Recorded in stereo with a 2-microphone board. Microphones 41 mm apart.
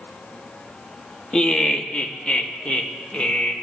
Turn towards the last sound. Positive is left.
turn(degrees=30)  # may be behind; listen again after turning